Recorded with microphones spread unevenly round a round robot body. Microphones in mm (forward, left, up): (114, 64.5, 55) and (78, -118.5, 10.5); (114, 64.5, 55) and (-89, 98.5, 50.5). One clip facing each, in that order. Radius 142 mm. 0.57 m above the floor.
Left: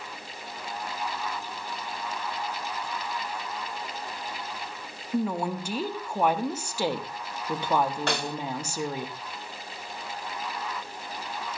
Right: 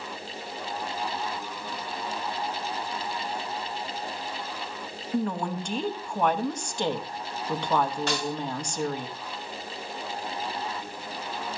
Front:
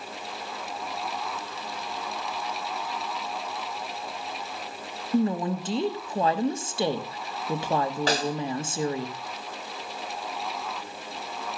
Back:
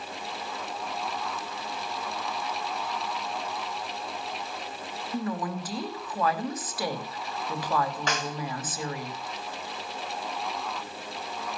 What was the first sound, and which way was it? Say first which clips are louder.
A woman speaking: left 1 dB, front 7 dB; 25° right.